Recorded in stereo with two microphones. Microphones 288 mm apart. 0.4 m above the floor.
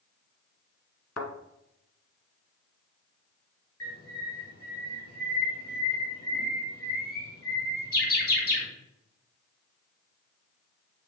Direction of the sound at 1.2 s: 60° left (ahead or behind).